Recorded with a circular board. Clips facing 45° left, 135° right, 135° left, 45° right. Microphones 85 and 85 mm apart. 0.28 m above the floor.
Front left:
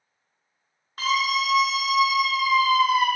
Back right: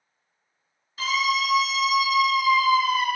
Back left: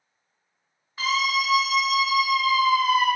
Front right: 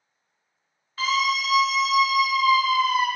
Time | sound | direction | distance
1.0 | a scream | 60° left | 1.9 m